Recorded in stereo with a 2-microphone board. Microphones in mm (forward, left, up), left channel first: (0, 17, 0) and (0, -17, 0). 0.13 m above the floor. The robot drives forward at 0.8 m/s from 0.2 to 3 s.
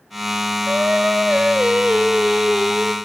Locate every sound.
0.7 s singing: 45° right (ahead or behind), 0.9 m; by 3.0 s 15° right (ahead or behind), 2.5 m